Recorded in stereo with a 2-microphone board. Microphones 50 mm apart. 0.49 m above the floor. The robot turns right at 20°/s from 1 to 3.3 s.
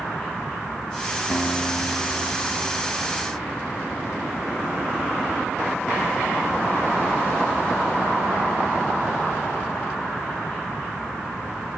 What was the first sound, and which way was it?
A guitar, 135° left.